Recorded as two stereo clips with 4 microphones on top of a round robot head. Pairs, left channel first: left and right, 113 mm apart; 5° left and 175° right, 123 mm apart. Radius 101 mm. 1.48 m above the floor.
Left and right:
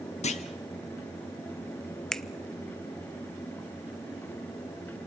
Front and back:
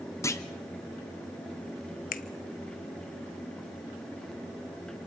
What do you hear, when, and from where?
0.2 s a clunk: 70° left, 1.3 m
2.1 s a finger snap: 5° left, 0.9 m